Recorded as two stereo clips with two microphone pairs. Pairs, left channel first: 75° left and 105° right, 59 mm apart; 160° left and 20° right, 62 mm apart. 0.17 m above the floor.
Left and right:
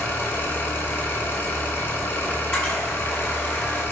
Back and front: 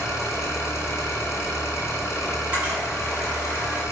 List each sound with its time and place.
0.0 s an engine running: 125° left, 1.0 m
2.3 s a camera shutter: 10° left, 1.8 m